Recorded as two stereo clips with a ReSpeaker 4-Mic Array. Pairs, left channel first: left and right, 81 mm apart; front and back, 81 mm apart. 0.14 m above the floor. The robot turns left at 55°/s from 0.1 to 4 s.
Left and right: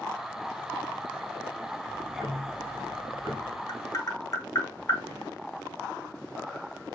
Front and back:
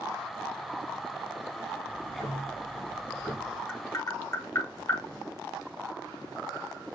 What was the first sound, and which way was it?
Ticking, straight ahead.